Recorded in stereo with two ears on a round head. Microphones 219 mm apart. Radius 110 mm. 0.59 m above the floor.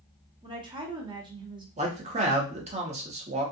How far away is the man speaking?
About 0.9 m.